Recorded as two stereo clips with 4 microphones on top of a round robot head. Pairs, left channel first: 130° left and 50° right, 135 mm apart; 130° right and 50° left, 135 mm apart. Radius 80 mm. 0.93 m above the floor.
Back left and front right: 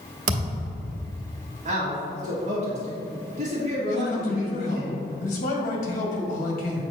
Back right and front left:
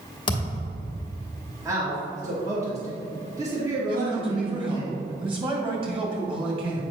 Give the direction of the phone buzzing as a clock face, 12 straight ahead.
I don't hear a phone buzzing.